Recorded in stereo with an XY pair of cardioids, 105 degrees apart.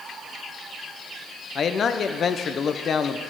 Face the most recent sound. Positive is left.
turn(degrees=45)